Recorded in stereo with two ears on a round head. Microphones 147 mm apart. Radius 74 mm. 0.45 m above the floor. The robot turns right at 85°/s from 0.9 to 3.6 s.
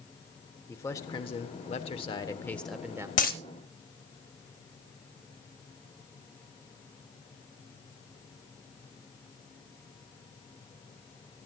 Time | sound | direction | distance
0.7 | a man speaking | 25° left | 1.3 m
3.2 | a dropped coin | 45° left (ahead or behind) | 0.9 m